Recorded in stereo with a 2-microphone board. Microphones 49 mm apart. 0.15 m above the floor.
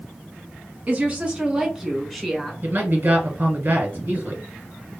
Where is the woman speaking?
35° right (ahead or behind), 1.3 m; by 2.5 s 5° left (ahead or behind), 1.4 m.